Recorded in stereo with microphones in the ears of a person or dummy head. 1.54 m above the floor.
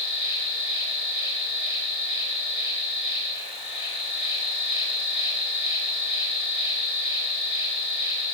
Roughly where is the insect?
Left.